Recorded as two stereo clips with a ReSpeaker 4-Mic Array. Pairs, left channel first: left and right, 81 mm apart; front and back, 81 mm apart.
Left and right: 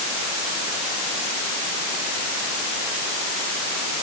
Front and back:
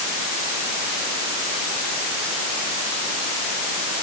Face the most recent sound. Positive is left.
No sound to turn to.